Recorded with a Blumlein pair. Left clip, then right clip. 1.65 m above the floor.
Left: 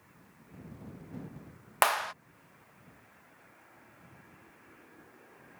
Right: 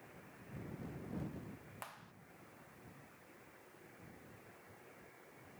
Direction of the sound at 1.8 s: 40° left.